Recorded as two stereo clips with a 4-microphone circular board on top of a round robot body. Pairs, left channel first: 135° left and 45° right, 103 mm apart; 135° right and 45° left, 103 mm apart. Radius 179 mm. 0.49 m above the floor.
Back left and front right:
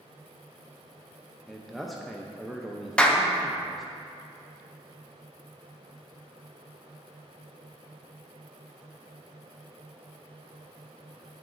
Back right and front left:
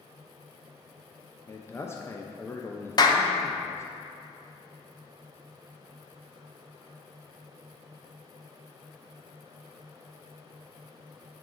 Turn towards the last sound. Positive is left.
turn(degrees=-150)